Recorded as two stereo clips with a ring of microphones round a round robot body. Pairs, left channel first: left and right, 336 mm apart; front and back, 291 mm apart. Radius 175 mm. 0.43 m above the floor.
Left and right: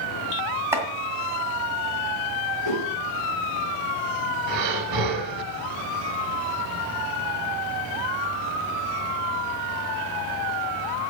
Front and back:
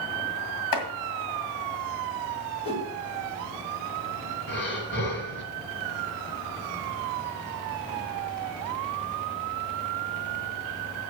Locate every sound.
0.7 s chopping: 5° right, 1.8 m
2.6 s a whoosh: 70° left, 3 m
4.5 s breathing: 60° right, 1.2 m